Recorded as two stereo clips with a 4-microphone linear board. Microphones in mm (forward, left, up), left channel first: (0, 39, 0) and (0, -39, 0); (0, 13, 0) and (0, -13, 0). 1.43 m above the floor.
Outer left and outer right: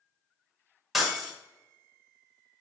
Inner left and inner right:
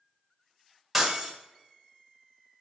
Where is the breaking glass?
5° right (ahead or behind), 1.8 m.